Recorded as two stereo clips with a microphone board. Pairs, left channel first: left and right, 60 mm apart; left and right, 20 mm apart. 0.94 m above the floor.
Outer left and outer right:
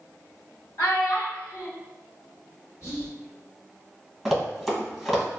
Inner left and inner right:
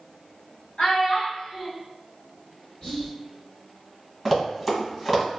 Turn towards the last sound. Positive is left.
turn(degrees=5)  # may be behind; listen again after turning